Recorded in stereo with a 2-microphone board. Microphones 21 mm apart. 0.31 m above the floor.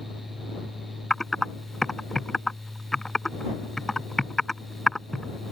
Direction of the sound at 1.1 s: 20° left (ahead or behind).